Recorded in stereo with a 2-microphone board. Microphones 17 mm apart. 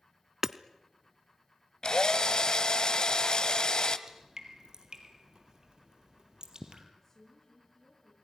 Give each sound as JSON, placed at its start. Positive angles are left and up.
{"t": 0.4, "sound": "hammering", "side_deg": -25, "distance_m": 0.6}
{"t": 1.8, "sound": "a drill", "side_deg": 50, "distance_m": 1.3}
{"t": 4.1, "sound": "dripping", "side_deg": -40, "distance_m": 3.0}
{"t": 7.0, "sound": "a woman speaking", "side_deg": 30, "distance_m": 7.5}